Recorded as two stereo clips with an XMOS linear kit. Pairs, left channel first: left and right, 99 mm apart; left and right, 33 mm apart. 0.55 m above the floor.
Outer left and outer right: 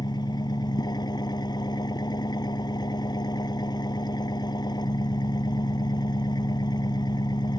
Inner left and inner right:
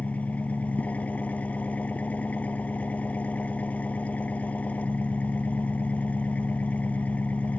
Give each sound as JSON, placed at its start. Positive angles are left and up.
{"t": 0.0, "sound": "an engine running", "side_deg": 45}